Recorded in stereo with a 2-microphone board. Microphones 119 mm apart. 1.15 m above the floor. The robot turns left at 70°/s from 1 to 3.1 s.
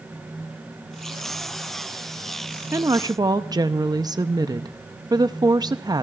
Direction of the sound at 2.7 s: 25° right (ahead or behind).